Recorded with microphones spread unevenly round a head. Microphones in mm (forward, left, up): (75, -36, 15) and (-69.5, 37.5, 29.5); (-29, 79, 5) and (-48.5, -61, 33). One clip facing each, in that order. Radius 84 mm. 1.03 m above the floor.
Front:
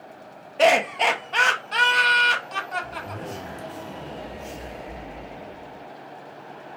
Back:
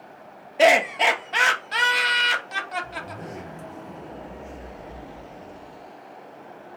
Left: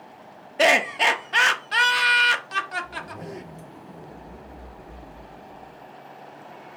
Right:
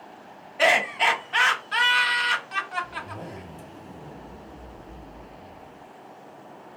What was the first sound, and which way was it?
Laughter, 70° left.